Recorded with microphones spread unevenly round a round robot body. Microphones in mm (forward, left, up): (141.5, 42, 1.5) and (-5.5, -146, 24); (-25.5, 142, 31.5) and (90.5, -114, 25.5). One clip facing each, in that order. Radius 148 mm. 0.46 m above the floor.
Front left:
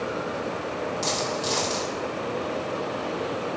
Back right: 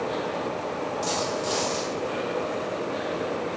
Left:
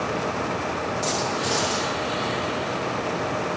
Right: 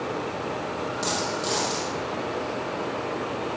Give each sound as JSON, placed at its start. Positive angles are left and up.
{"t": 1.0, "sound": "a dropped coin", "azimuth_deg": 15, "distance_m": 5.5}